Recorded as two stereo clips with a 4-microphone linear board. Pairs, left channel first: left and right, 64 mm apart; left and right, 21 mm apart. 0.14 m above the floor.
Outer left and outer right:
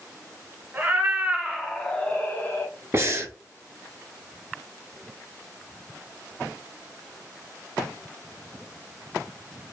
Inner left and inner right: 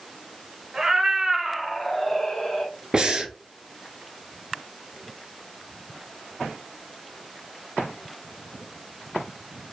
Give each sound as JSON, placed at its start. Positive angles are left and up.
{"t": 0.7, "sound": "a cat meowing", "side_deg": -25, "distance_m": 0.9}
{"t": 2.9, "sound": "breathing", "side_deg": -40, "distance_m": 0.7}